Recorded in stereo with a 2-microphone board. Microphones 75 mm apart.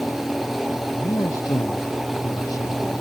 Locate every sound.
0.9 s a man speaking: 45° left (ahead or behind); by 3.0 s 50° left (ahead or behind)